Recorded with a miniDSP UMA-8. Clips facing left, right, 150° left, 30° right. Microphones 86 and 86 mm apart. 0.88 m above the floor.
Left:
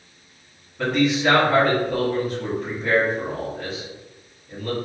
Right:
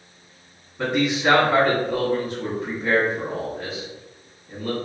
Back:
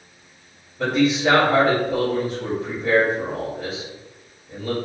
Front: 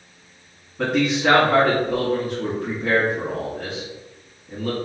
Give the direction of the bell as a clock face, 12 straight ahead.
I don't hear a bell.